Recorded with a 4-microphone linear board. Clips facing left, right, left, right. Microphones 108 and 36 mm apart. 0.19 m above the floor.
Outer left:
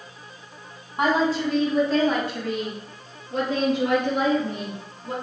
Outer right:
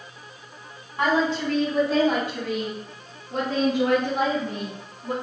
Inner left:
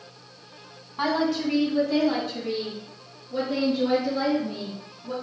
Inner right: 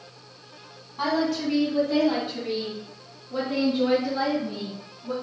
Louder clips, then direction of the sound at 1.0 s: Outer left 1 dB, inner left 1 dB; 15° left (ahead or behind).